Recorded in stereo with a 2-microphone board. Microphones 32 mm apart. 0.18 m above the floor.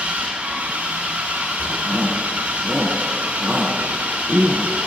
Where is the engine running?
65° right (ahead or behind), 7.5 m.